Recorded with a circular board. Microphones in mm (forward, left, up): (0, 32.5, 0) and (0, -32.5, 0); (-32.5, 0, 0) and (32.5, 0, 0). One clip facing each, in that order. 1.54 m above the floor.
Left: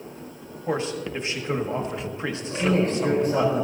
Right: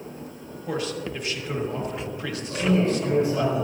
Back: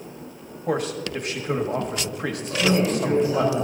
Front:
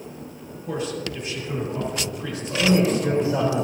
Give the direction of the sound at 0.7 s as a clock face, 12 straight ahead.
7 o'clock.